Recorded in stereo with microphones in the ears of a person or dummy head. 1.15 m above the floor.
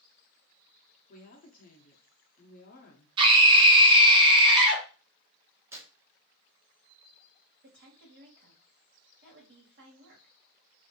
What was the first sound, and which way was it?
A woman speaking, 45° left (ahead or behind).